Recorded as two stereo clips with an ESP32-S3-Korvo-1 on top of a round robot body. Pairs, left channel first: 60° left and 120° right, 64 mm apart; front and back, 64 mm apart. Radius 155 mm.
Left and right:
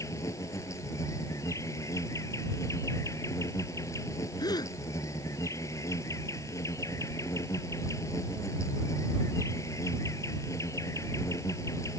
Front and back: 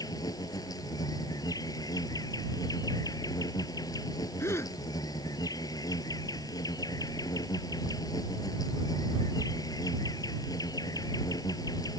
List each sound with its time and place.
0.0 s an insect: 20° left
4.4 s a gasp: 45° left